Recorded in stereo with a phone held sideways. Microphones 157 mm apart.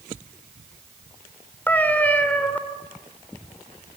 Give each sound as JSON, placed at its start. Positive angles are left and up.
{"t": 1.7, "sound": "a cat meowing", "side_deg": 10, "distance_m": 2.0}